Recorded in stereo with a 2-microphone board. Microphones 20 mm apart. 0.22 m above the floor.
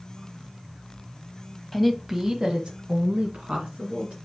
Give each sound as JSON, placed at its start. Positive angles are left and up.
{"t": 1.7, "sound": "a woman speaking", "side_deg": 10, "distance_m": 1.1}